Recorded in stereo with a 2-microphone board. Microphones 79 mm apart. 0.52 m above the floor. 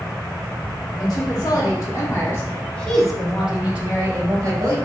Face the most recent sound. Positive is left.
turn(degrees=-40)  # may be behind; listen again after turning